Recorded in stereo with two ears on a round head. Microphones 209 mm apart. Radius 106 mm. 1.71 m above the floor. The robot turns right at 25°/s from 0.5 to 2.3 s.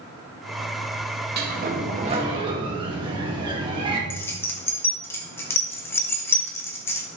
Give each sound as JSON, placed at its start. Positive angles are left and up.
{"t": 1.4, "sound": "a sliding door", "side_deg": -40, "distance_m": 2.0}
{"t": 4.1, "sound": "keys jangling", "side_deg": 10, "distance_m": 1.4}